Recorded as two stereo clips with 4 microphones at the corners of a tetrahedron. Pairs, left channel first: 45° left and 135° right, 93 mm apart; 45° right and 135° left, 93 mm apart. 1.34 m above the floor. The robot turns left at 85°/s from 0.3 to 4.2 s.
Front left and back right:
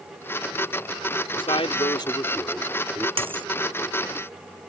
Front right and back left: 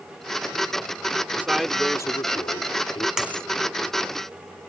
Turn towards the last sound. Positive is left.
turn(degrees=130)